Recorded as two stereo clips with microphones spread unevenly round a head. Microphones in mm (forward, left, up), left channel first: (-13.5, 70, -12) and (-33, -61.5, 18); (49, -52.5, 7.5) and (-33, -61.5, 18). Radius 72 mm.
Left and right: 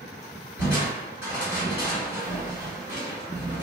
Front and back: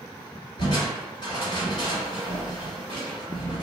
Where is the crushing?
65° left, 1.9 m.